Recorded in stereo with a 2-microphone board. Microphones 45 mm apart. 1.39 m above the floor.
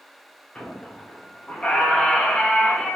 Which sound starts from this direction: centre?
A squeak, at 0.6 s.